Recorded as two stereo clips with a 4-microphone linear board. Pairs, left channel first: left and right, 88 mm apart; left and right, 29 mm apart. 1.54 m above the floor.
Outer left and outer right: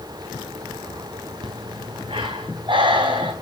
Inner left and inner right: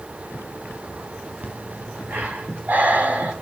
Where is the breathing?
70° right (ahead or behind), 3.5 m.